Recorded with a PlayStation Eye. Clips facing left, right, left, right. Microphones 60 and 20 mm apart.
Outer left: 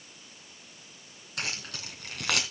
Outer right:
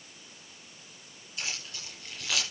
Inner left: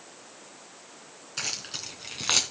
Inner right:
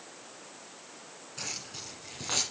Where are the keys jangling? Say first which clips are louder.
Outer left 3 dB, inner left 6 dB; 65° left (ahead or behind), 3.5 m.